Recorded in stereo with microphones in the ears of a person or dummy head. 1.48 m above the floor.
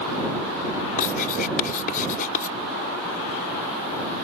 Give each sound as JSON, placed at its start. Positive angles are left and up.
{"t": 1.0, "sound": "writing", "side_deg": 50}